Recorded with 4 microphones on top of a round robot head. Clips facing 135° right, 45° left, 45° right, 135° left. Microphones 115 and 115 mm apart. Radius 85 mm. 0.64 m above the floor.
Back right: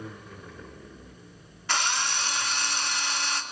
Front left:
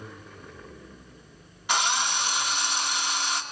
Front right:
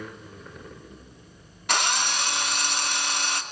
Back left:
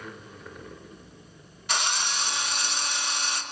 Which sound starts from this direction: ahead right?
A drill, at 1.7 s.